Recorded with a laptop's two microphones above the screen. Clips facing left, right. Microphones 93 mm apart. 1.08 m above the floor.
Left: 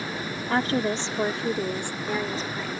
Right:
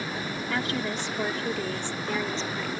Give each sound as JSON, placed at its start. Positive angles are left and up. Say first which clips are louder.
{"t": 0.5, "sound": "a woman speaking", "louder": "left 7 dB", "side_deg": 40}